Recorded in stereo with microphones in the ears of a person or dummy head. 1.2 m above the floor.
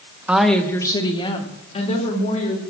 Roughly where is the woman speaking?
Centre.